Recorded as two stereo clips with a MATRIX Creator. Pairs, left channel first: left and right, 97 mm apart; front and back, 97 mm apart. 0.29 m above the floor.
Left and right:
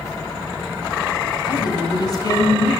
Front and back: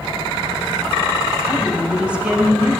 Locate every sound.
1.5 s a woman speaking: 105° left, 2.0 m